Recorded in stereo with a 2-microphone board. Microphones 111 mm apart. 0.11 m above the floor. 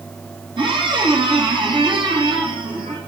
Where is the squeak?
45° right (ahead or behind), 3 m.